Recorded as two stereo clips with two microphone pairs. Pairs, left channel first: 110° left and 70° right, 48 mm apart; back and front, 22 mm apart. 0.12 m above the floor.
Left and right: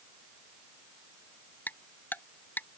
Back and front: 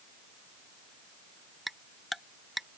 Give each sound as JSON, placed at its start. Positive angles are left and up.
{"t": 1.7, "sound": "ticking", "azimuth_deg": 90}